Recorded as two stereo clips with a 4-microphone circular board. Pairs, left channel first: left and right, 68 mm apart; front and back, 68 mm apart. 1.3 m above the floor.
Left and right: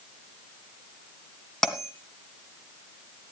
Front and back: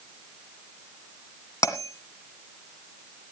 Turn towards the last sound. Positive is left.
turn(degrees=10)